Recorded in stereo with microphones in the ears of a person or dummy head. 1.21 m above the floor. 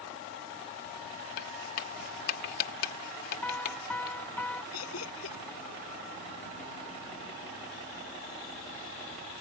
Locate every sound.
1.4 s writing: 60° left (ahead or behind)
3.4 s a piano: 5° left (ahead or behind)
4.7 s laughter: 85° left